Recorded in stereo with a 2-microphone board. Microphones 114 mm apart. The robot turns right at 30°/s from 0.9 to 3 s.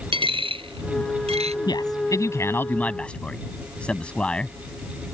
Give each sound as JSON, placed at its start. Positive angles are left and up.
{"t": 0.1, "sound": "a dropped coin", "side_deg": -50}
{"t": 1.7, "sound": "a man speaking", "side_deg": 40}